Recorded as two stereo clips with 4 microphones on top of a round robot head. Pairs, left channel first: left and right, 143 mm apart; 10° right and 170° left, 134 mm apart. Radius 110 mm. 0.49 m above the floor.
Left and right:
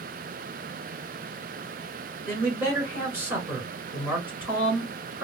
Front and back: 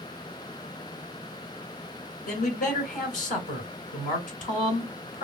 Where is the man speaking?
10° right, 3 m.